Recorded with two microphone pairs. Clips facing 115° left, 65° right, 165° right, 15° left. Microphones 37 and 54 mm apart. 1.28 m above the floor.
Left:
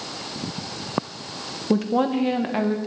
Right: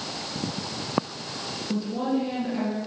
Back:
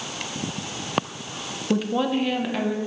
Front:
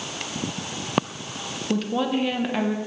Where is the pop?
I don't hear a pop.